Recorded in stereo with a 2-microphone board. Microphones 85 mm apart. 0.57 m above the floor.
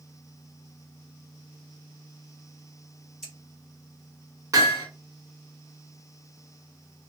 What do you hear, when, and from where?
3.2 s scissors: 5° right (ahead or behind), 1.5 m
4.5 s hammering: 40° right (ahead or behind), 1.2 m